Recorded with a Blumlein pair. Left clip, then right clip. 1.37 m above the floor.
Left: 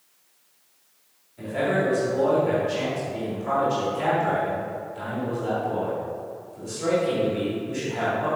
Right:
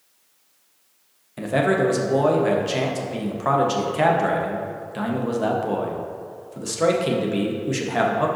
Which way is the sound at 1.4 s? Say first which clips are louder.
Right 4 dB; 50° right.